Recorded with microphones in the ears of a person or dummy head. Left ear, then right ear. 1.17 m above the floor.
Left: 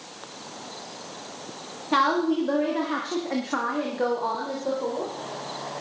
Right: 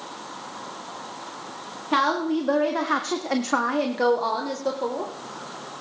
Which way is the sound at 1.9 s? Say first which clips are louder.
Even; 5° right (ahead or behind).